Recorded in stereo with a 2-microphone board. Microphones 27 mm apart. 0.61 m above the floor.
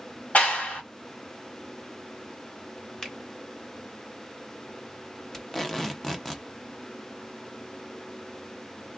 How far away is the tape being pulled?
About 0.8 m.